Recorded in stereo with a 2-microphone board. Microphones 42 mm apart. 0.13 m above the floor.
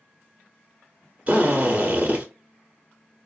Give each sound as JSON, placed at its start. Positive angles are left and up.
{"t": 1.3, "sound": "a drill", "side_deg": -30, "distance_m": 1.1}